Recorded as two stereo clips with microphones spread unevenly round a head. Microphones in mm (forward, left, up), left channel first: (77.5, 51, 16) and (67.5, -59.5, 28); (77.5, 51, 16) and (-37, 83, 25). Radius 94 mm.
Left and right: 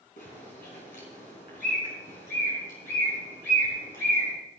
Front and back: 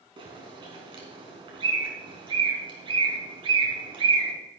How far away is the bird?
About 3.5 m.